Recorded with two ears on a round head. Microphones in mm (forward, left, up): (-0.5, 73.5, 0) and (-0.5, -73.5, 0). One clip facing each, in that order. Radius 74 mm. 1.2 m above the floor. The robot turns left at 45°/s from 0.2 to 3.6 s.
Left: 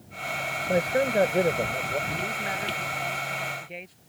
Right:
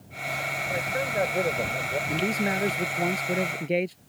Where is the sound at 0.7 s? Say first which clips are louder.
Left 7 dB; 55° left; by 2.0 s 5° right.